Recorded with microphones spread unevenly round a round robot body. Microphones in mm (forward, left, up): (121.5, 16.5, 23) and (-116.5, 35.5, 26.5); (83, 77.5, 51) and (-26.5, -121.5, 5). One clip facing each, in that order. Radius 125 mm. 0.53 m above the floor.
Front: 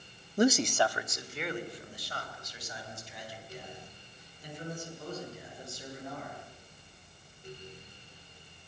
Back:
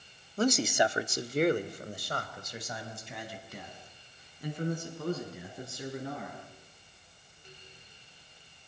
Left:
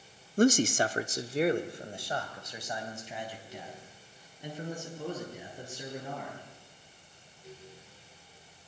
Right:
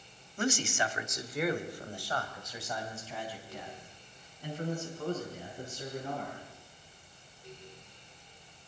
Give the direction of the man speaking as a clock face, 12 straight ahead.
11 o'clock.